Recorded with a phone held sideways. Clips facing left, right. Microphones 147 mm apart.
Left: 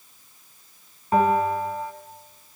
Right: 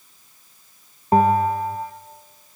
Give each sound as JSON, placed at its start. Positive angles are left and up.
{"t": 1.1, "sound": "a bell", "side_deg": -40, "distance_m": 1.9}